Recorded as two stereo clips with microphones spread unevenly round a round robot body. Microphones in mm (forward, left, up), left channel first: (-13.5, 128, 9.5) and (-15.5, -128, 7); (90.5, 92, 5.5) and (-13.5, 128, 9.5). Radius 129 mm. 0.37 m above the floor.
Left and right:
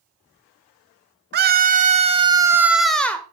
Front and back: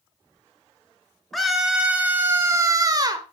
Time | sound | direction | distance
1.3 | a scream | 105° right | 1.5 m